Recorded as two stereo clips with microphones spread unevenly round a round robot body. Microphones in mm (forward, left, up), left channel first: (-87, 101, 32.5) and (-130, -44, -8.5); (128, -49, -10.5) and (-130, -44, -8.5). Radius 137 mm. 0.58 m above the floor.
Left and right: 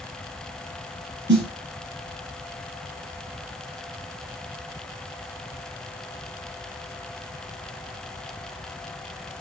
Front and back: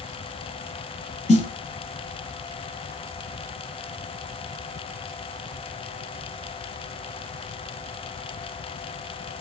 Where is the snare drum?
65° right, 1.1 m.